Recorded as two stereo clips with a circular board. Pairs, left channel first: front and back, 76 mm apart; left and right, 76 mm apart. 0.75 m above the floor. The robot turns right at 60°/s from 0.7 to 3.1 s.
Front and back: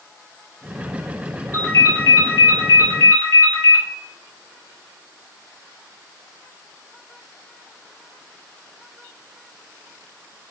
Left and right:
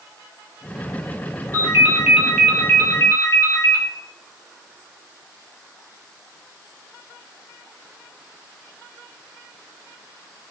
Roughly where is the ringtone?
Ahead right.